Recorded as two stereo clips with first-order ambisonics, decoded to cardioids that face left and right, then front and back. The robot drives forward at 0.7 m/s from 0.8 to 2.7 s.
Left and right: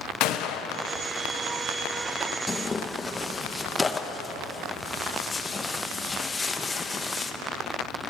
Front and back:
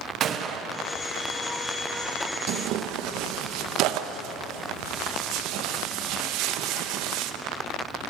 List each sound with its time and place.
0.2 s a gunshot: 125° left, 1.4 m
2.5 s tearing paper: 165° left, 1.0 m